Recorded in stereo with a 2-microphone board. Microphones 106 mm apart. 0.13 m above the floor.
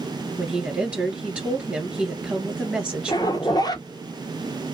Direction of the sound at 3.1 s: 40° left (ahead or behind).